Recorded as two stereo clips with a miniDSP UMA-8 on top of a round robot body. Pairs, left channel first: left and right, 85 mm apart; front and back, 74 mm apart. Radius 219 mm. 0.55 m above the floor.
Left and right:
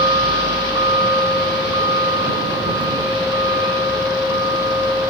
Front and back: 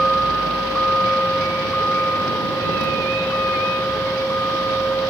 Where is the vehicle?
85° right; by 5.1 s 60° right.